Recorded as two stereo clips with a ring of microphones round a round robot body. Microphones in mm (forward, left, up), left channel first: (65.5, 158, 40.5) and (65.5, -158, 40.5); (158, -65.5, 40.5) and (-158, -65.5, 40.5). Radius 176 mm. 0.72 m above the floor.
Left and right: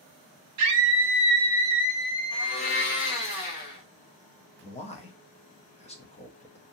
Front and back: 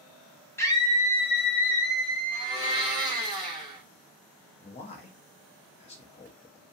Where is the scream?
80° right, 1.1 m; by 3.3 s 25° left, 1.5 m.